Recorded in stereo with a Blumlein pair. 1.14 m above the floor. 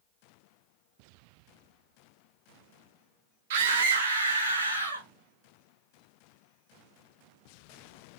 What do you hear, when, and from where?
3.5 s a scream: 55° right, 1.3 m; by 5.1 s 75° right, 3 m